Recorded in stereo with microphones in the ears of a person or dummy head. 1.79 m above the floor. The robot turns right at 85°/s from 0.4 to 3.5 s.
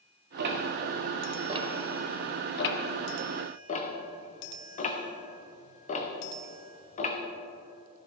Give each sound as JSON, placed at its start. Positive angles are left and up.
{"t": 0.4, "sound": "ticking", "side_deg": -55, "distance_m": 1.0}